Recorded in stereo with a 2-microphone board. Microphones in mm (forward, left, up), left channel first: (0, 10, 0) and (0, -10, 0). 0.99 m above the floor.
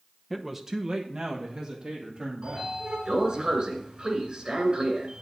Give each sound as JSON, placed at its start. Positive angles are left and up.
{"t": 0.3, "sound": "a man speaking", "side_deg": 5, "distance_m": 0.8}
{"t": 2.4, "sound": "a sliding door", "side_deg": -50, "distance_m": 2.0}